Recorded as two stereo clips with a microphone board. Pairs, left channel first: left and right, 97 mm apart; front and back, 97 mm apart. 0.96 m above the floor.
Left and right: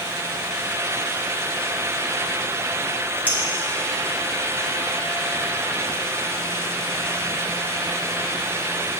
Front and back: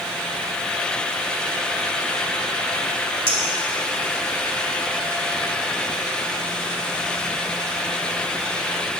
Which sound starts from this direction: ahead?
A clink, at 3.3 s.